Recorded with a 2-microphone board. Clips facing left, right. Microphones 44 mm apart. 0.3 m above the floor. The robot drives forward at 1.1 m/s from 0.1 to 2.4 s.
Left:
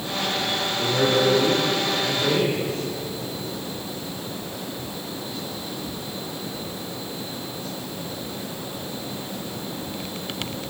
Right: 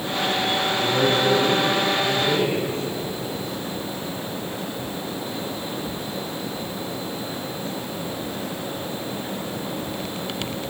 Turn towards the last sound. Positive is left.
turn(degrees=25)  # may be behind; listen again after turning